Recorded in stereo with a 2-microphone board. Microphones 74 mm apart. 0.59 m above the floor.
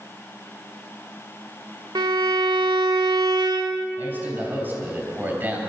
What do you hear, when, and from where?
1.9 s a violin: 70° right (ahead or behind), 0.8 m
4.0 s a man speaking: 25° right (ahead or behind), 3.5 m